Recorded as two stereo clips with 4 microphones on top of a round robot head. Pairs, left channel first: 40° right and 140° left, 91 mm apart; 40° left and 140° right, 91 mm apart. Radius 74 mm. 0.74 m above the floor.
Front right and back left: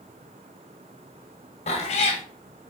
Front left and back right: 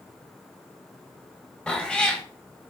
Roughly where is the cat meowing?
Ahead right.